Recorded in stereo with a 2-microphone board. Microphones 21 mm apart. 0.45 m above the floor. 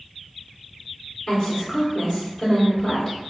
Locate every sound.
1.3 s a woman speaking: 25° left (ahead or behind), 1.7 m